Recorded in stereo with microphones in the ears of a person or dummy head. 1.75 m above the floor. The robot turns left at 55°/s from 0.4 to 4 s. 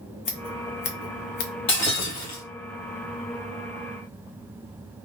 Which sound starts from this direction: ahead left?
Breaking glass, at 1.7 s.